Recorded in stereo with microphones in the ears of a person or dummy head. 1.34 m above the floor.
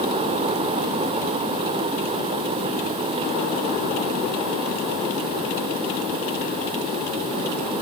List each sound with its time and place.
Only background noise.